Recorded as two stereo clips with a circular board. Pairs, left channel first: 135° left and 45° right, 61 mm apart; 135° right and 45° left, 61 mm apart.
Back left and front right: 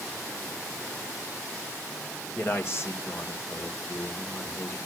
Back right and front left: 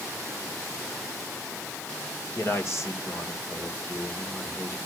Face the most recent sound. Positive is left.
turn(degrees=180)